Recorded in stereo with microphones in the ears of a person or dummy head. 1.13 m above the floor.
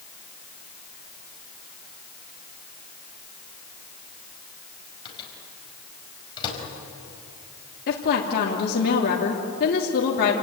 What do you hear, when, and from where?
5.0 s a microwave: 30° left (ahead or behind), 5 m
7.9 s a woman speaking: 55° left (ahead or behind), 3 m